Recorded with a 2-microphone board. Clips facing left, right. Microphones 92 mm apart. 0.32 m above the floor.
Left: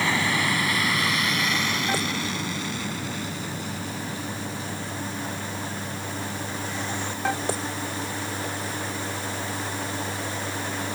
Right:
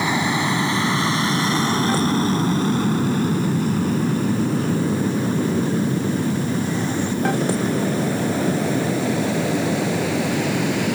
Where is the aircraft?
20° right (ahead or behind); by 10.9 s 75° right (ahead or behind).